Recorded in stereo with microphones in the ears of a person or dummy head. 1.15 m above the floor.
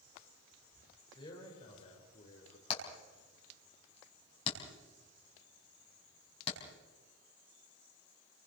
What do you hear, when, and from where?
1.1 s a man speaking: 25° left (ahead or behind), 5 m; by 2.6 s 40° left (ahead or behind), 4 m
2.7 s hammering: 35° left (ahead or behind), 5.5 m